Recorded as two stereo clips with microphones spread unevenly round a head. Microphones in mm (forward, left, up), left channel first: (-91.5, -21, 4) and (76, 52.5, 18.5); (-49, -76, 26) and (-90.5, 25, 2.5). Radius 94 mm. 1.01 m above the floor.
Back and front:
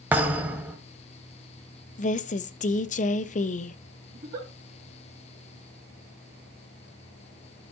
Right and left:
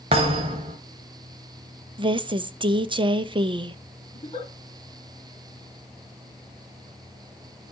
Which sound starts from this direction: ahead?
A giggle, at 4.1 s.